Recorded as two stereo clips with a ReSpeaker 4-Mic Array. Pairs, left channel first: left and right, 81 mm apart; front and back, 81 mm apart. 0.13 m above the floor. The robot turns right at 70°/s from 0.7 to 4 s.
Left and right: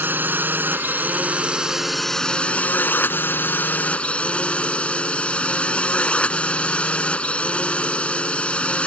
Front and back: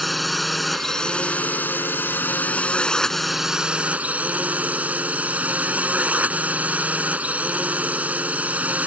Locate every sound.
0.0 s a drone: 90° right; by 8.9 s 140° left